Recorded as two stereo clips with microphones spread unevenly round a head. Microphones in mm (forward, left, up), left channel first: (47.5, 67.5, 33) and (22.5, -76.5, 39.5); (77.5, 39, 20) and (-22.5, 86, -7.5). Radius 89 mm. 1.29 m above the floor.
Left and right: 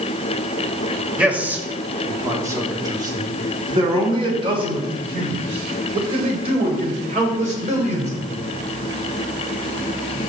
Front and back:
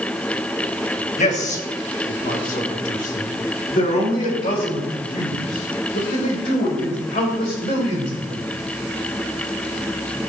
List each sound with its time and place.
1.2 s a man speaking: 15° right, 3 m; by 8.4 s 55° right, 7.5 m